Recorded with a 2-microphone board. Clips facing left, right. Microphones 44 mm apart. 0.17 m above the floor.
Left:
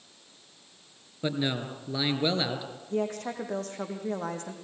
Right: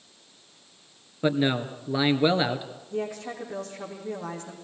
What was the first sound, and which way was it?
A man speaking, 25° right (ahead or behind).